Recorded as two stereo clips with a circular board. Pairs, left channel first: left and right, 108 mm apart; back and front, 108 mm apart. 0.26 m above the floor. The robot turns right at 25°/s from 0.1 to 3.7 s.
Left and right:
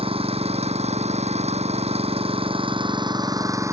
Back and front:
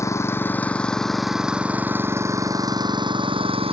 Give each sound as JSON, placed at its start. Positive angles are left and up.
{"t": 0.0, "sound": "an engine running", "azimuth_deg": -120}